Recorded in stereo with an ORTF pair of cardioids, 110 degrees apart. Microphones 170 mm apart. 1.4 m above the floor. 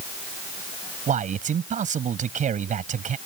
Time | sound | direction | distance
1.1 | a man speaking | 50° right | ?